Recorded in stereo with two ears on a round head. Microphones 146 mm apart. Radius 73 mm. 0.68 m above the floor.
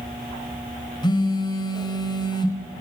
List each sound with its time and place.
1.0 s a phone buzzing: 25° left (ahead or behind), 2.5 m